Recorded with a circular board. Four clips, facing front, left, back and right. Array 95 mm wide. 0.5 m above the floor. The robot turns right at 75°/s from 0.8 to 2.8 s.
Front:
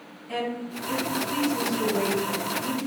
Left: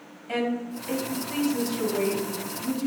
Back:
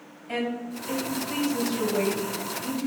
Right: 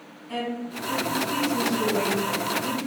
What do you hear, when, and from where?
0.3 s a woman speaking: 115° left, 3 m; by 2.9 s 95° right, 3 m